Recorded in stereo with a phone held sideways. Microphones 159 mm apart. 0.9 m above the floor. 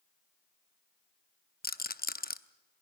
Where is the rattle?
70° left (ahead or behind), 0.6 m.